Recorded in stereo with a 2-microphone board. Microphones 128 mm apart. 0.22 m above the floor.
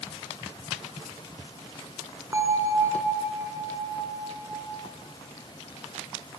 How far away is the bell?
About 1.7 m.